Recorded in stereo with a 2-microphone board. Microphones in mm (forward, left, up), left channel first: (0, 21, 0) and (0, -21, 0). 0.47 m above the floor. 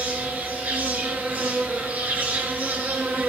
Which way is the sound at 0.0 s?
55° right (ahead or behind).